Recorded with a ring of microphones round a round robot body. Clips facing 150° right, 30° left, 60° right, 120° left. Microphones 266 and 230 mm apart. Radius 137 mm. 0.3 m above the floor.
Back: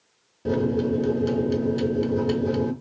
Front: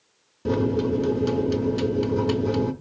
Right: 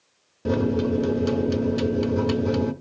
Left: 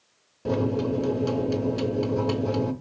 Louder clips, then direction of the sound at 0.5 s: Even, right 3 dB; 25° right.